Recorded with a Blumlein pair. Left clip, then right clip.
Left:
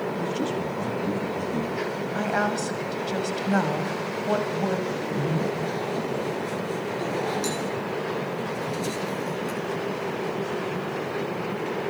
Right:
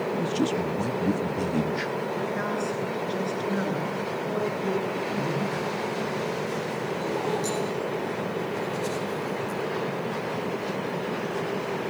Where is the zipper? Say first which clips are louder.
Even; 65° left, 7.5 m.